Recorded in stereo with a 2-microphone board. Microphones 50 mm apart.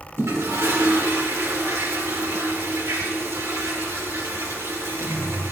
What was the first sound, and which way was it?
A toilet flushing, 90° right.